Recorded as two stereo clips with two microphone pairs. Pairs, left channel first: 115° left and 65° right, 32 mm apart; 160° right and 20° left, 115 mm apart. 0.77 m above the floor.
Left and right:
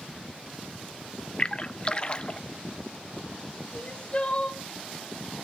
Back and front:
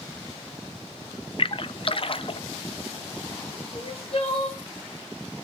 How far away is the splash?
About 0.6 m.